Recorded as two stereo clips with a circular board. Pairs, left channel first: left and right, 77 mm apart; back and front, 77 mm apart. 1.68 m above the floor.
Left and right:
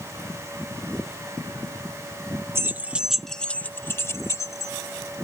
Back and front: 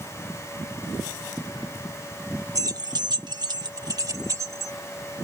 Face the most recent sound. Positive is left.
turn(degrees=50)